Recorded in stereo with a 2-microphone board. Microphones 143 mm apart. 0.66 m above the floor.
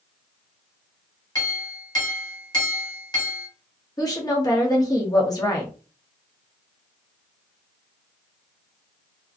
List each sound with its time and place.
1.4 s a clink: 25° left (ahead or behind), 1.5 m
4.0 s a woman speaking: 25° left (ahead or behind), 1.0 m